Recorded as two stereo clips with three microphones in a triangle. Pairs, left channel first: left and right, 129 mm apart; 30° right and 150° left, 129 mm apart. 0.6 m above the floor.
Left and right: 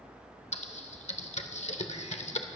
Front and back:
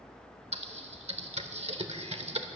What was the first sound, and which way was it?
Typing on a keyboard, 115° left.